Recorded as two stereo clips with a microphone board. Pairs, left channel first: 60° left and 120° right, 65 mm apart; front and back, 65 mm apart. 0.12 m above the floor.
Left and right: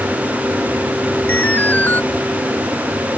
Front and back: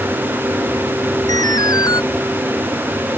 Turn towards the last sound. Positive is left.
turn(degrees=0)